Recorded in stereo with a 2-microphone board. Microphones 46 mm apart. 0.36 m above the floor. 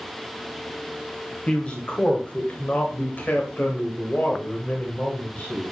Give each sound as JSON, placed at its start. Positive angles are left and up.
{"t": 1.5, "sound": "a man speaking", "side_deg": 25, "distance_m": 2.0}